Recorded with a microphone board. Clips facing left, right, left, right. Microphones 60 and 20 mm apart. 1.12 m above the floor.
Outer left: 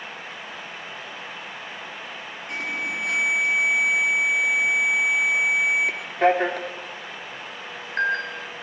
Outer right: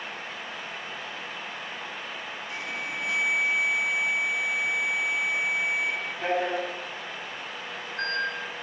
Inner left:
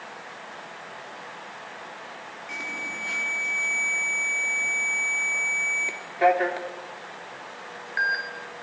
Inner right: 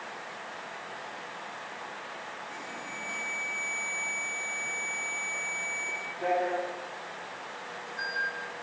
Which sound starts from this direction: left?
An alarm, at 2.5 s.